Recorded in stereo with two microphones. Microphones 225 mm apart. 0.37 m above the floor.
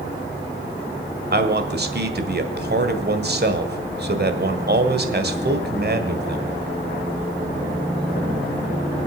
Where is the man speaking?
50° right (ahead or behind), 1.7 m.